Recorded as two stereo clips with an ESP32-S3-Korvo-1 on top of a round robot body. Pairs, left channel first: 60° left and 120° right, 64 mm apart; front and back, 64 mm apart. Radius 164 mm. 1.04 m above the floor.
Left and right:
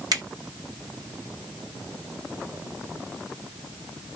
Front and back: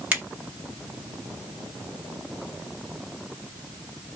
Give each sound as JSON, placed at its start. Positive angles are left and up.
{"t": 0.1, "sound": "a finger snap", "azimuth_deg": -115, "distance_m": 1.5}